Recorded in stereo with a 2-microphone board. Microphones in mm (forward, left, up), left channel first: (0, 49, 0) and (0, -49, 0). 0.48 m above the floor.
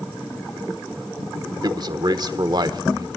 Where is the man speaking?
45° right (ahead or behind), 1.1 m.